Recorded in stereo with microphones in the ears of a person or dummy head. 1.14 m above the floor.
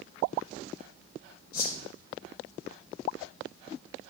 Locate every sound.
1.5 s a whoosh: 65° left (ahead or behind), 7 m